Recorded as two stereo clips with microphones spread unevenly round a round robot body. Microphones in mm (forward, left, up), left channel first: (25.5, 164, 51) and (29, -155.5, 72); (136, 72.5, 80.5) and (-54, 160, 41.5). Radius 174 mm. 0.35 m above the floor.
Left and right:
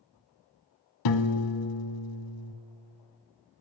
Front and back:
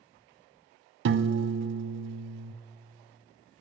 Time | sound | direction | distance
1.1 | a piano | 120° left | 0.6 m